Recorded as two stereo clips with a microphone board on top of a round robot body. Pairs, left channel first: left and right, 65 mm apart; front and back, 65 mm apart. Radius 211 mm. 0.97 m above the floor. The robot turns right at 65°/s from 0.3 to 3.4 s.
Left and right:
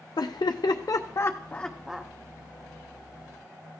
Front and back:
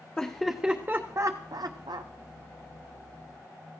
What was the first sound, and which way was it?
Laughter, 75° left.